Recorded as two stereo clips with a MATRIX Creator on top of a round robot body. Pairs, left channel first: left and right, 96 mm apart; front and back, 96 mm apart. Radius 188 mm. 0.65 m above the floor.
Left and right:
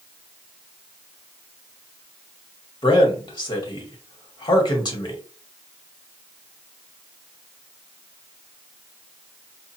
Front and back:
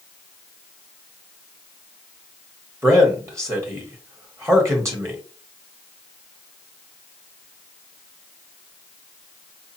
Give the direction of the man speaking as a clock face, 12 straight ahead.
8 o'clock.